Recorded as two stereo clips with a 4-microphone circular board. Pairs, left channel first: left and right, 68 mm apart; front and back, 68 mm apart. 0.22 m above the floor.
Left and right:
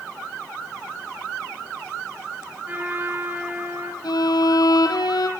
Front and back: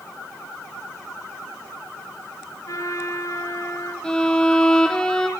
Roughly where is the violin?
Left.